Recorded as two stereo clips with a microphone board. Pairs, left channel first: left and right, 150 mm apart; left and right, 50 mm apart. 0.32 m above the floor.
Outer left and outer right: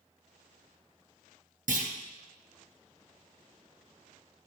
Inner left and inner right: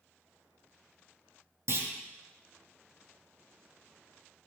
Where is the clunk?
70° right (ahead or behind), 2.5 m.